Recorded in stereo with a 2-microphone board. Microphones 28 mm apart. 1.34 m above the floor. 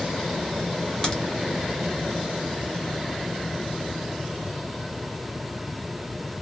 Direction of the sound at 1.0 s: 25° left (ahead or behind).